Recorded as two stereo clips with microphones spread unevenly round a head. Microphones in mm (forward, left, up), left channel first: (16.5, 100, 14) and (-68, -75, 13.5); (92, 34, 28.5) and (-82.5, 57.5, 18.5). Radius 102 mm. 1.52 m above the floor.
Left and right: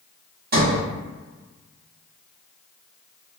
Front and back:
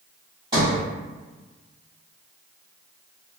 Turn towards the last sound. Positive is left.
turn(degrees=-120)